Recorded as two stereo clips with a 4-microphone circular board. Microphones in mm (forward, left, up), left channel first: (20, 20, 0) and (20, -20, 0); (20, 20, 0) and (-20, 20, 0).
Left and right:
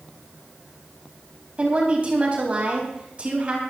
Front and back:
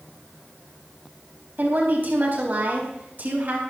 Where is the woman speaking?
145° right, 4 m.